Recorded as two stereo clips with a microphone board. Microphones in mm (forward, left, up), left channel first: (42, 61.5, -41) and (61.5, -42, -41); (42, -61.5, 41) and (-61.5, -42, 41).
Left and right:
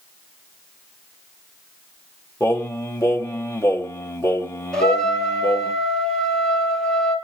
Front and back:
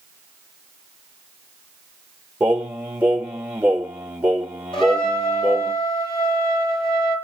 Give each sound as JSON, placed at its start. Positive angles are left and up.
{"t": 2.4, "sound": "singing", "azimuth_deg": 110, "distance_m": 1.5}
{"t": 4.7, "sound": "a trumpet", "azimuth_deg": 20, "distance_m": 4.5}